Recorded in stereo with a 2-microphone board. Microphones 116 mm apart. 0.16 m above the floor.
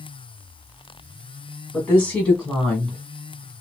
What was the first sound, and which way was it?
A woman speaking, 10° left (ahead or behind).